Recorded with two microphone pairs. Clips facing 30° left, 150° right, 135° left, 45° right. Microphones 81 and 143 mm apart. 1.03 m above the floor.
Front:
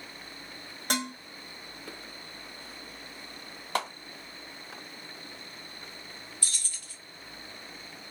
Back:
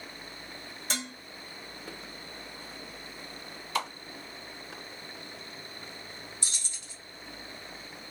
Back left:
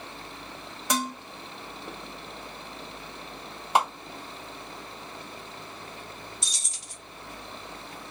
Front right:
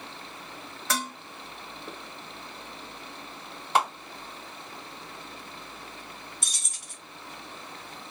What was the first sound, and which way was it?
Dishes clattering, 65° left.